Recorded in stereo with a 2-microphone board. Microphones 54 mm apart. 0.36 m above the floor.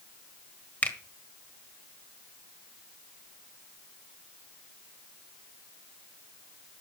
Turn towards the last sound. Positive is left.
turn(degrees=35)  # may be behind; listen again after turning